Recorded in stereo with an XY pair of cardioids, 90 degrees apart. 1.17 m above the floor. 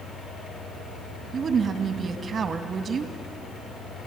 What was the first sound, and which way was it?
A fan, 60° left.